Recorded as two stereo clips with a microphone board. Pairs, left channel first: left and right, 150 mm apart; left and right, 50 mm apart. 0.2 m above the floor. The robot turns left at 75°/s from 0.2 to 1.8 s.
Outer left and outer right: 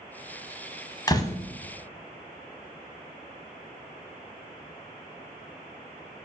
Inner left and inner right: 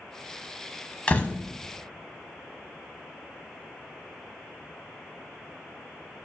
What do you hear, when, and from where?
1.1 s a door slam: 25° left (ahead or behind), 0.9 m